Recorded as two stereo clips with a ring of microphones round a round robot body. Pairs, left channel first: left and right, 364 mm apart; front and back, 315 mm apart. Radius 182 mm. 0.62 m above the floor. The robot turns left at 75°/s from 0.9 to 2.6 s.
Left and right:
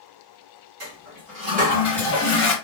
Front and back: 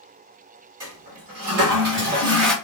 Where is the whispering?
No whispering in this recording.